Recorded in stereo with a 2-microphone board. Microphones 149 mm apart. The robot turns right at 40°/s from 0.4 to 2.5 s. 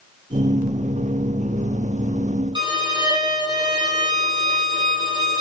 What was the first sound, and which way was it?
A violin, 30° right (ahead or behind).